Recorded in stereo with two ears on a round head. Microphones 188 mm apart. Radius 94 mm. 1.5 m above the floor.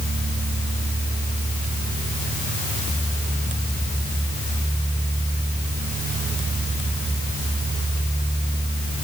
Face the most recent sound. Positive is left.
No sound to turn to.